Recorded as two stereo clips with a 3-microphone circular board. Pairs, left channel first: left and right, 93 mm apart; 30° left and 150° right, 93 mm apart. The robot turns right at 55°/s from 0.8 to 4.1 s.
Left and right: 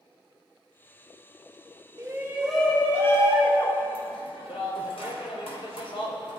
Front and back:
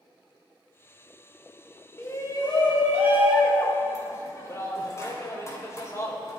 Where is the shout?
30° right, 3.5 m; by 6.4 s 85° left, 3.5 m.